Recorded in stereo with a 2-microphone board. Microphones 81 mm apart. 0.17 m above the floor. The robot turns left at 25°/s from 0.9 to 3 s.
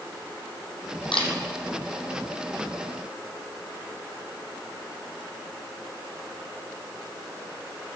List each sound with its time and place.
1.1 s a camera shutter: 80° left, 1.9 m